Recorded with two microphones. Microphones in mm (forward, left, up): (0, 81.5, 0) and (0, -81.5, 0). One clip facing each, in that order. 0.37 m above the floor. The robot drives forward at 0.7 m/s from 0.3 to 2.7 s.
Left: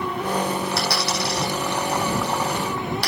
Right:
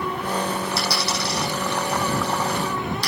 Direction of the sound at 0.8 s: 60° left (ahead or behind).